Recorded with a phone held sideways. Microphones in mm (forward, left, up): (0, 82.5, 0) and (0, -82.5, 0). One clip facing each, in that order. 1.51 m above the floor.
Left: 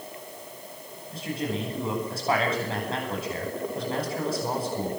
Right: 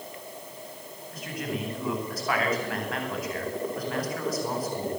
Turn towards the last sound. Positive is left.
turn(degrees=25)  # may be behind; listen again after turning